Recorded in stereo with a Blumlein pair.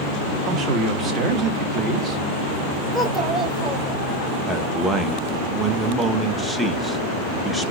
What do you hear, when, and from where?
0.5 s a man speaking: 25° right, 1.5 m
2.9 s a child speaking: 15° right, 2.5 m
4.5 s a man speaking: 5° right, 0.8 m